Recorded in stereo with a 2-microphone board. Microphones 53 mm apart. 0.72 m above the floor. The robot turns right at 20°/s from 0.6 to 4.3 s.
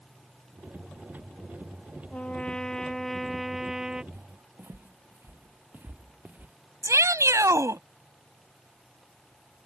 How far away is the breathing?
No breathing in this recording.